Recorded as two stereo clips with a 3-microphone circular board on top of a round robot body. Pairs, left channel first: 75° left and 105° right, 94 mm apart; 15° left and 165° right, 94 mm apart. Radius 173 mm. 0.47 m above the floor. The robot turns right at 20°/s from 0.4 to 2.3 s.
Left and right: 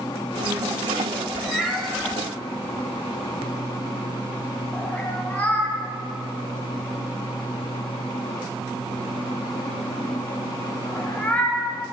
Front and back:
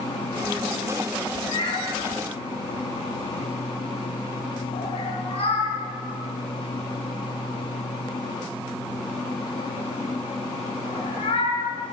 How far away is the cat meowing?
About 1.9 m.